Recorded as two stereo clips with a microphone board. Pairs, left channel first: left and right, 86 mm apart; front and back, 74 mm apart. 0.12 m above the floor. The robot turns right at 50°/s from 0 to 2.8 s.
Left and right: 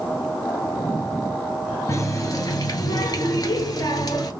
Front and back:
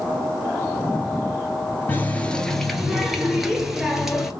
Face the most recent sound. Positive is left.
turn(degrees=95)